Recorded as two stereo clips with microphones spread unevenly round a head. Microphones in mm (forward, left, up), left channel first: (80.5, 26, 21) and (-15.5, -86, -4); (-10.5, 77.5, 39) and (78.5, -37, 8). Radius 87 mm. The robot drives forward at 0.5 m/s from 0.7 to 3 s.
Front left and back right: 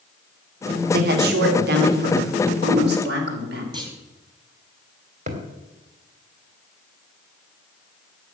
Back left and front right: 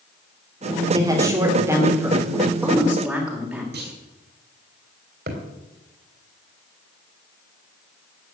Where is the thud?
90° right, 3 m.